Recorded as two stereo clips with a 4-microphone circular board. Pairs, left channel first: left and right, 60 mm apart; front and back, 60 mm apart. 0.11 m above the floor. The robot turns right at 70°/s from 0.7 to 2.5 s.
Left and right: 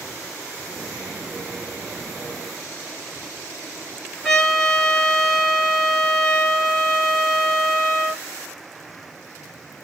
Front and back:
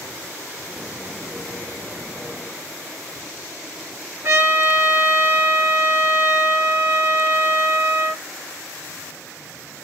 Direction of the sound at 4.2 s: 170° left.